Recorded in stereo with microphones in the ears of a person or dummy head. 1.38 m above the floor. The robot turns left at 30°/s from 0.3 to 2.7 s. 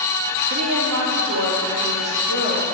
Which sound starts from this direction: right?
A woman speaking, at 0.5 s.